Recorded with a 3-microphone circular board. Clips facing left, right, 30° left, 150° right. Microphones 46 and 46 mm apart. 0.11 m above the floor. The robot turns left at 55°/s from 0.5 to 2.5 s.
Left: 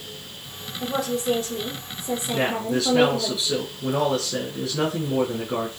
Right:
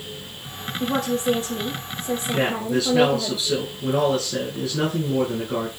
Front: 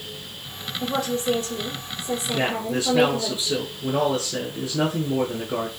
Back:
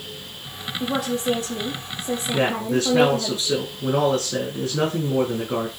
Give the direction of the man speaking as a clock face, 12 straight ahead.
6 o'clock.